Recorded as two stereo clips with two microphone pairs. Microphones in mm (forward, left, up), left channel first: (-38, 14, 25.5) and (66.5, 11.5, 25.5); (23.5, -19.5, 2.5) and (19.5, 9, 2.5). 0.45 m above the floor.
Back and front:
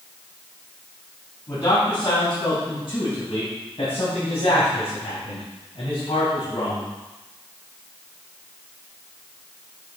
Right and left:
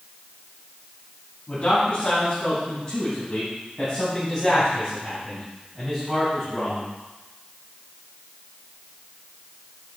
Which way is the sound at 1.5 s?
135° right.